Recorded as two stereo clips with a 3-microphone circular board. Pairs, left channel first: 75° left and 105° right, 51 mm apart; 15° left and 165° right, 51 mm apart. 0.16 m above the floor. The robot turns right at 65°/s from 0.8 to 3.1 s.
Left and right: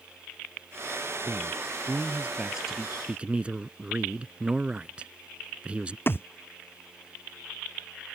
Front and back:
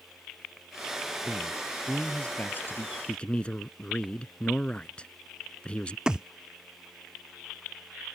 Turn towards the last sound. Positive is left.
turn(degrees=125)